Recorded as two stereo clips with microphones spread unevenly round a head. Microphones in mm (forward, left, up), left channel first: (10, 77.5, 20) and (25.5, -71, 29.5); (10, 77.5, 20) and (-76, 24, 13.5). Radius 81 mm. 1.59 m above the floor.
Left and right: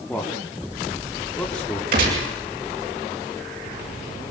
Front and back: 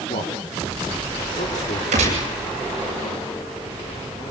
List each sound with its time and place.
0.1 s a man speaking: 15° left, 5.5 m
1.9 s a gunshot: 120° right, 8 m